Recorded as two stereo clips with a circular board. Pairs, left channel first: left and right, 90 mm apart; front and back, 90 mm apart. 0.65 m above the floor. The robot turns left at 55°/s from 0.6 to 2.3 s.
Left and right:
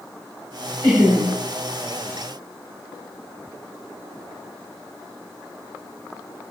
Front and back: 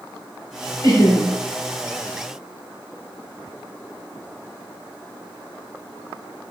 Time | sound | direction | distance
0.8 | laughter | 15° left | 1.6 m